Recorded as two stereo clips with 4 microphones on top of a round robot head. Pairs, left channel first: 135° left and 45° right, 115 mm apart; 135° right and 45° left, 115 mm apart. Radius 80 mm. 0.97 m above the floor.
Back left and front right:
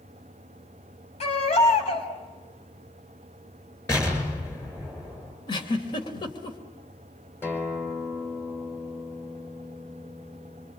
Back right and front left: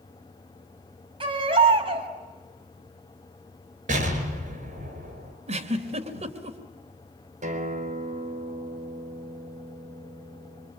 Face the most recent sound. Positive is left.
turn(degrees=60)